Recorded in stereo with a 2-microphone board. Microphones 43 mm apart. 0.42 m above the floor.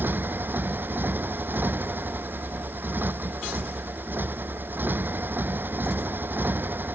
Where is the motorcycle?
50° right (ahead or behind).